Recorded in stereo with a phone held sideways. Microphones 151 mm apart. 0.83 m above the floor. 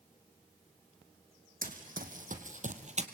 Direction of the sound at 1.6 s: 70° right (ahead or behind).